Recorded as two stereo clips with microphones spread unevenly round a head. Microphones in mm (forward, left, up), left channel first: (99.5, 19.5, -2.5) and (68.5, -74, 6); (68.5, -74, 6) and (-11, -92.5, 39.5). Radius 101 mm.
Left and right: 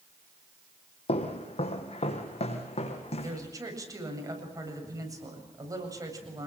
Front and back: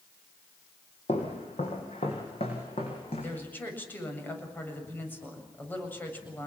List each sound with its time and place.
1.1 s footsteps: 70° left, 2.5 m; by 3.4 s 65° left, 4 m
3.2 s a woman speaking: 55° right, 7.5 m